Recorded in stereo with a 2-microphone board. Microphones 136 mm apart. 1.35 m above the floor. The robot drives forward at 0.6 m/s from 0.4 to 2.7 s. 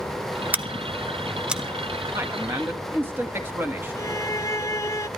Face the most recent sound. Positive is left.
turn(degrees=20)  # may be behind; listen again after turning